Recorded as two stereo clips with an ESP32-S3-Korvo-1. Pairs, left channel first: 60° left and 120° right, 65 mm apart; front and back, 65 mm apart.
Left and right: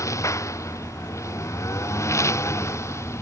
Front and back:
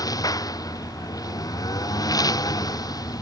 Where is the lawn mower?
20° left; by 3.2 s 15° left.